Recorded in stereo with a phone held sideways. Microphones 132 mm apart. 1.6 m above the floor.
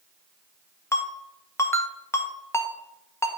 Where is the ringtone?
20° left (ahead or behind), 1.0 m.